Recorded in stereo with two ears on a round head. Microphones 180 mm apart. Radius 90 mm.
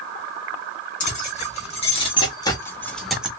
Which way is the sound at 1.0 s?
40° left (ahead or behind).